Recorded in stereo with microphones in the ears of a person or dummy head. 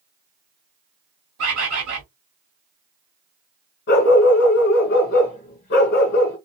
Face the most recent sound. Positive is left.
turn(degrees=45)  # may be behind; listen again after turning